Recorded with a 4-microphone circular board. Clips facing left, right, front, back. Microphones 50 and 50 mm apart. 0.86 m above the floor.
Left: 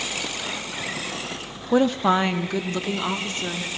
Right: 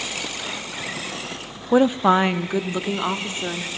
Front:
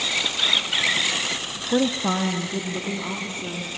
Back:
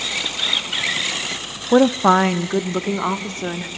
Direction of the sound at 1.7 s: 165° right.